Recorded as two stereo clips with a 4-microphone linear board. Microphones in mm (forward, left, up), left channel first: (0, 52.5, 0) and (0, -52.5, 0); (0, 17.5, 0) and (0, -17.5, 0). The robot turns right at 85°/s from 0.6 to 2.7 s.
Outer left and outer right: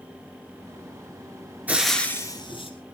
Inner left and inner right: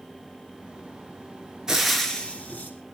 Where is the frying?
20° right, 3 m; by 2.7 s 70° left, 3 m.